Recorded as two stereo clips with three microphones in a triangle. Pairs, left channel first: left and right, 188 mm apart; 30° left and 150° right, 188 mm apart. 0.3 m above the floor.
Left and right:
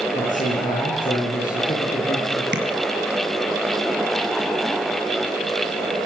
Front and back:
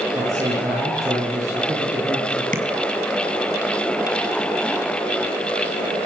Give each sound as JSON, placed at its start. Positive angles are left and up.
{"t": 0.1, "sound": "a man speaking", "azimuth_deg": 135, "distance_m": 7.5}
{"t": 2.5, "sound": "tapping", "azimuth_deg": -110, "distance_m": 3.5}